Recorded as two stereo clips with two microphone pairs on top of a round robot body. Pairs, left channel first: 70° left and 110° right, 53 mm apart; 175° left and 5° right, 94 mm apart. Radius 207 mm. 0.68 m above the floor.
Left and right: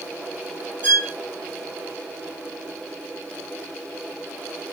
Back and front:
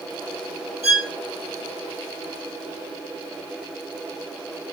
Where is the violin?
70° right, 1.7 m.